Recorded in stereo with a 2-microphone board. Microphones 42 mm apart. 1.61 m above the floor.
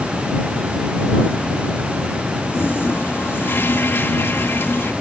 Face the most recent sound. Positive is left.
turn(degrees=60)  # may be behind; listen again after turning